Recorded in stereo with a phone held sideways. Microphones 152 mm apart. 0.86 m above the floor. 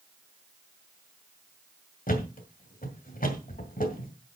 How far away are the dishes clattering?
I don't hear dishes clattering.